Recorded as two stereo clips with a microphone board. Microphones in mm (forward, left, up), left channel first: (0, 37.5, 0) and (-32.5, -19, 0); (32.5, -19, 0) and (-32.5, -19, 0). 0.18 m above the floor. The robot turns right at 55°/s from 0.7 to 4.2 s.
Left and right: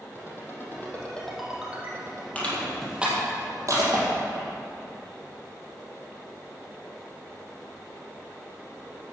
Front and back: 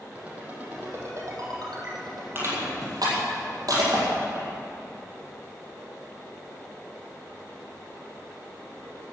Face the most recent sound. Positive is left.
turn(degrees=-130)